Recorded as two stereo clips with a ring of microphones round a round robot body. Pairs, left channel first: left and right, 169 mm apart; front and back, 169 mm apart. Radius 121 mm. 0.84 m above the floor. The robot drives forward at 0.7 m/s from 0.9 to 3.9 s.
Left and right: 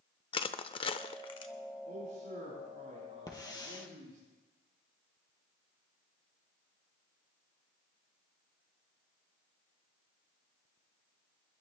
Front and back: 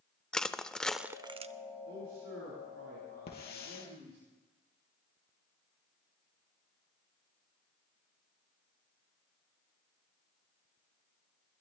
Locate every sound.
0.3 s crushing: 80° left, 0.5 m; by 1.5 s 150° left, 0.7 m
1.9 s a man speaking: 150° right, 9 m; by 4.2 s 155° right, 10 m
3.3 s a hiss: 25° left, 3.5 m